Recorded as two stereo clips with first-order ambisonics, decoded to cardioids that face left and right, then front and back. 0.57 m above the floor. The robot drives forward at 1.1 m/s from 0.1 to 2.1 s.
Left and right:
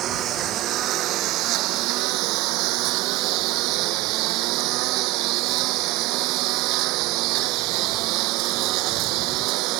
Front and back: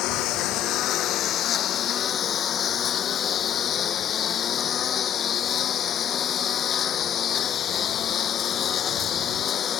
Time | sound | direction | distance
0.0 | a lawn mower | 40° right | ?